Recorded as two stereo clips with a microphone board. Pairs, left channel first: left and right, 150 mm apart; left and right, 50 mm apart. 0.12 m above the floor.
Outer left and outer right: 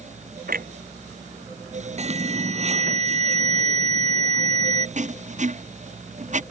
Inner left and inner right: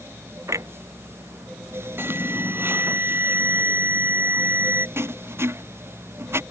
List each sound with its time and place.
0.5 s a clunk: 75° right (ahead or behind)
2.0 s an alarm: 50° right (ahead or behind)
5.0 s writing: 55° right (ahead or behind)